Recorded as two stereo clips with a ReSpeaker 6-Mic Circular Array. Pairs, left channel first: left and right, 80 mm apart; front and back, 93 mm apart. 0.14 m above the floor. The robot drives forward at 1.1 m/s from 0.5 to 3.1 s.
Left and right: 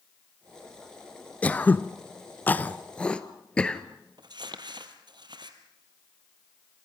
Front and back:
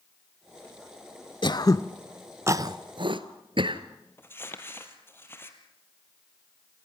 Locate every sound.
1.4 s throat clearing: 20° left, 1.0 m; by 3.8 s 165° left, 1.2 m
4.2 s crumpling: 65° right, 2 m